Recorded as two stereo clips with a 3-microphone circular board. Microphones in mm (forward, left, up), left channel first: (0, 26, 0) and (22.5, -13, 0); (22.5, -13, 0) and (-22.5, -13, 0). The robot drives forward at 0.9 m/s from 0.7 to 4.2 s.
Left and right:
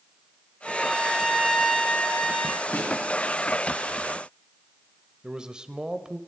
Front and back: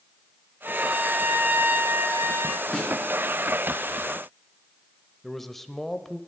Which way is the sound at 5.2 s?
65° right.